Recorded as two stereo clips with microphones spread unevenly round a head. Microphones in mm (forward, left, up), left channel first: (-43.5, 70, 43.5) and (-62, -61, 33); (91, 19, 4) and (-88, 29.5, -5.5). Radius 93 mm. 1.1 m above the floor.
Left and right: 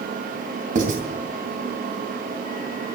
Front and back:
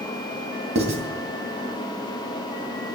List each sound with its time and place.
0.8 s writing: 125° right, 2.5 m